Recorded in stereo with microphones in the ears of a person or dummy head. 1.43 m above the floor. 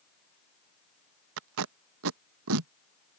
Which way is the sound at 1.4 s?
70° right (ahead or behind).